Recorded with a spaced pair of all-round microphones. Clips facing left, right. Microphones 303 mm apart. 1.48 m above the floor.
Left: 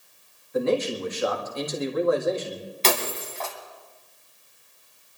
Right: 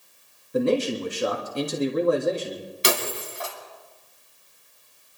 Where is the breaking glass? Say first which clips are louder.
Even; 15° right (ahead or behind), 2 m.